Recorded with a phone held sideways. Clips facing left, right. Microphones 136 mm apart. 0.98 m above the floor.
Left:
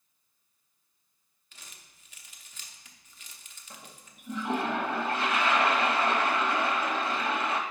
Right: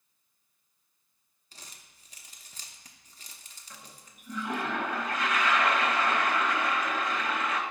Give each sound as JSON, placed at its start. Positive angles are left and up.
{"t": 1.5, "sound": "crumpling", "side_deg": -35, "distance_m": 0.8}
{"t": 3.7, "sound": "a toilet flushing", "side_deg": 30, "distance_m": 0.8}